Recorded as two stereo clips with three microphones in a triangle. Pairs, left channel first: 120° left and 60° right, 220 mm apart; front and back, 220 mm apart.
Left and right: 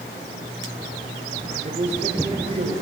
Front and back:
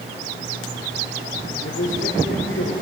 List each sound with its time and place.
1.6 s a man speaking: 10° right, 3.5 m